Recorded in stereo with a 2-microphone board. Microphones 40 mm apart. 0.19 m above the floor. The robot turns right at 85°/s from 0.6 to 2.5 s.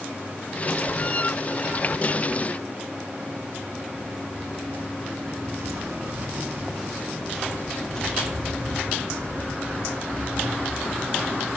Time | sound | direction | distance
5.6 | footsteps | 80° right | 1.3 m